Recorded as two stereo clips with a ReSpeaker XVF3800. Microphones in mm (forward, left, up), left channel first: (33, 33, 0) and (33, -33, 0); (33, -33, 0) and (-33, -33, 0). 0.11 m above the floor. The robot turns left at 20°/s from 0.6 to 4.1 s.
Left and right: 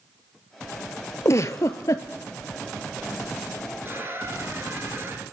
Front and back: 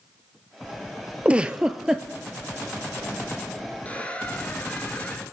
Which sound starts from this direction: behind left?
A giggle, at 1.2 s.